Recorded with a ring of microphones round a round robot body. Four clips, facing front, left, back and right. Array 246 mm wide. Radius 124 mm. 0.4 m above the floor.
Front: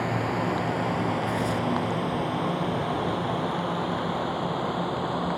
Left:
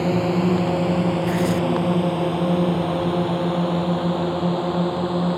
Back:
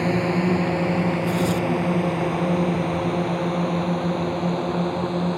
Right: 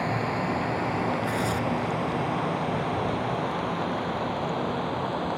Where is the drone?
120° left; by 5.4 s 115° left.